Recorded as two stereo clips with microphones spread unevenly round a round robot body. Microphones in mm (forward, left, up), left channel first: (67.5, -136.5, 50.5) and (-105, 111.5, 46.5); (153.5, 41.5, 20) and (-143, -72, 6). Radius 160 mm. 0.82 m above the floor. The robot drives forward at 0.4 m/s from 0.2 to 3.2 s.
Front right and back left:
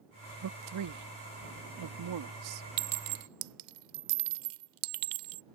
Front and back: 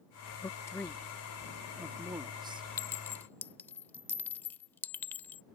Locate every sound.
0.4 s a man speaking: 100° left; by 2.7 s 130° left
2.8 s a clink: 100° left; by 5.4 s 105° left